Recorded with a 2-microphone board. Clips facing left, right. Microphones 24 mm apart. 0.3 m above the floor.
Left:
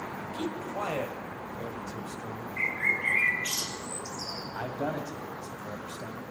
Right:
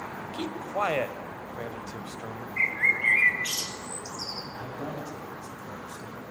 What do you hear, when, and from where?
0.3 s a man speaking: 35° right (ahead or behind), 1.1 m
2.6 s a bird: 25° right (ahead or behind), 1.5 m
4.5 s a man speaking: 45° left (ahead or behind), 2 m